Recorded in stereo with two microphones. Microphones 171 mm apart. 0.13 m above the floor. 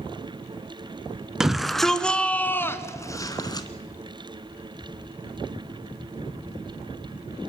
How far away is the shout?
About 1.5 m.